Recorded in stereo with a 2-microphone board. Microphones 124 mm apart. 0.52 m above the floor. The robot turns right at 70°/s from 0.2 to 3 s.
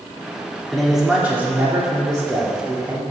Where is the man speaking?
5° left (ahead or behind), 1.4 m; by 3.0 s 15° right (ahead or behind), 1.4 m.